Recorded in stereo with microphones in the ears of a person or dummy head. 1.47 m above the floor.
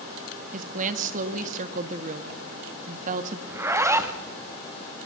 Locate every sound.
0.5 s a woman speaking: 45° right (ahead or behind), 2.0 m
3.5 s a zipper: 10° right (ahead or behind), 1.7 m